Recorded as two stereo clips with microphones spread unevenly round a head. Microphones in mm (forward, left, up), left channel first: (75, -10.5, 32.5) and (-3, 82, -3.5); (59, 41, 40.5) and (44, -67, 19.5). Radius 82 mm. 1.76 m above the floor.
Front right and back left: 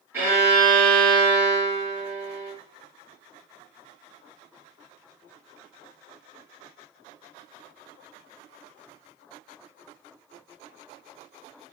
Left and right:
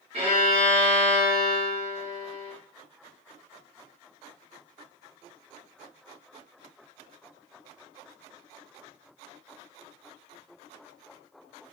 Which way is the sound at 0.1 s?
145° right.